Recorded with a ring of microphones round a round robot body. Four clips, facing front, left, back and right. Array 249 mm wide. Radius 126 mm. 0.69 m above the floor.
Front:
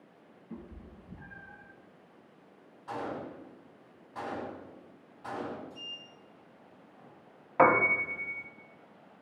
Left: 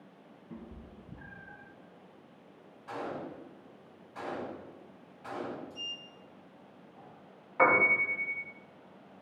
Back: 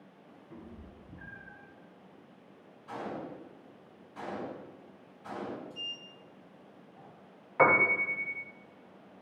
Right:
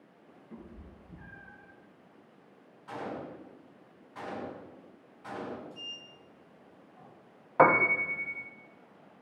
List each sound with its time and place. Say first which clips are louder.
0.5 s a cat meowing: left 2 dB, front 3 dB; 55° left, 4 m; by 1.7 s 60° left, 3 m
2.9 s a gunshot: even, front 2 dB; 25° left, 4 m
5.7 s a sliding door: left 1 dB, back 1 dB; 110° left, 3.5 m
7.6 s a piano: right 3 dB, front 2 dB; 50° right, 1.2 m